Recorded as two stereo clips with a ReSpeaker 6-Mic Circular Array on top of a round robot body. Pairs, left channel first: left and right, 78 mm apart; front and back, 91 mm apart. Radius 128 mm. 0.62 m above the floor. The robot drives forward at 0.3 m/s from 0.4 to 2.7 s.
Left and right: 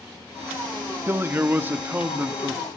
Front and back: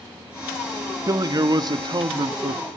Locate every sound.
1.1 s a man speaking: 145° right, 1.1 m; by 2.6 s 155° right, 1.4 m